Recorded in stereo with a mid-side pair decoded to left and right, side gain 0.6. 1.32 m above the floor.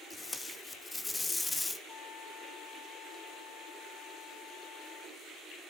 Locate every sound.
0.1 s tape being pulled: 20° left, 1.6 m
1.9 s a trumpet: 55° left, 5.5 m